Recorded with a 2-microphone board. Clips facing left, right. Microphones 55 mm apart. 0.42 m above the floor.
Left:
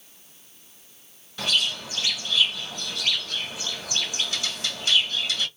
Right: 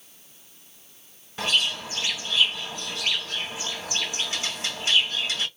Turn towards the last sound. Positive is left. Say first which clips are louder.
# right 1 dB
turn(degrees=-30)  # may be behind; listen again after turning